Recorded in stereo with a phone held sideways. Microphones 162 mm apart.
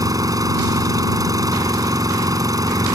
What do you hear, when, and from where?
0.0 s an engine running: 20° right (ahead or behind)